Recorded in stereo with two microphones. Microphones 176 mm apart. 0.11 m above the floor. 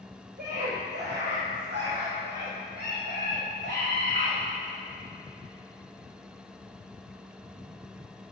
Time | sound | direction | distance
0.4 | a scream | 55° right (ahead or behind) | 3 m